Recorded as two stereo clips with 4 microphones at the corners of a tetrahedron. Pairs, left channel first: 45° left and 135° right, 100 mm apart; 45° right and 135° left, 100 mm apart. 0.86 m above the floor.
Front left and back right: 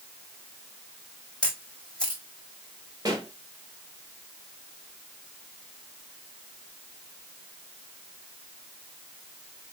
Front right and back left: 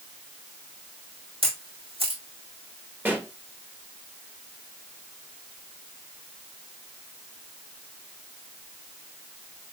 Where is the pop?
160° right, 1.3 m.